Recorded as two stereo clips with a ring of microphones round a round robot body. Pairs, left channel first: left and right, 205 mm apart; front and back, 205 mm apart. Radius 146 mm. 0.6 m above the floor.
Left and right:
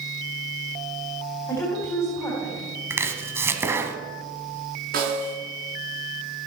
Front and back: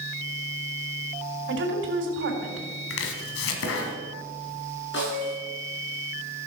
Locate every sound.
1.5 s a woman speaking: 170° left, 3.5 m
2.9 s chopping: 10° right, 1.5 m
4.9 s a snare drum: 50° right, 6 m